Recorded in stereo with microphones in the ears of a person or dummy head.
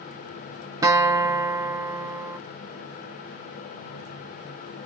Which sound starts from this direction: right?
A guitar, at 0.8 s.